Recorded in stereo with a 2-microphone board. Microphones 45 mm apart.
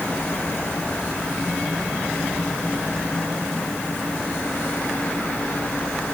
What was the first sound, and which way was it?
Only background noise.